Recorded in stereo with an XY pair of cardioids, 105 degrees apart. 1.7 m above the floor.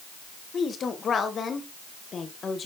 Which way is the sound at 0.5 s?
45° left.